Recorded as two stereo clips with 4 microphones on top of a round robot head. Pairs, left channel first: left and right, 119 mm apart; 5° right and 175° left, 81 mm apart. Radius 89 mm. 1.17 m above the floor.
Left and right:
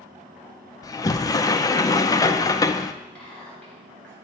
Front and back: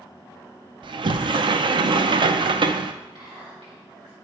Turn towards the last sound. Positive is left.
turn(degrees=170)